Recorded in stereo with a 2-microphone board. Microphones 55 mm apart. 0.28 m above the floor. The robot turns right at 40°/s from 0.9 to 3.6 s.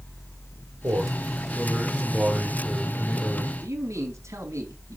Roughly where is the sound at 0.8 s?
Ahead right.